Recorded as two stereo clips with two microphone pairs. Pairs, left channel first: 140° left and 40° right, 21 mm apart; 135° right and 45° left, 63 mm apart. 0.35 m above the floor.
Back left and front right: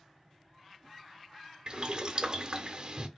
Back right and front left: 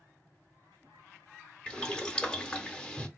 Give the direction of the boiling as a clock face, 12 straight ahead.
2 o'clock.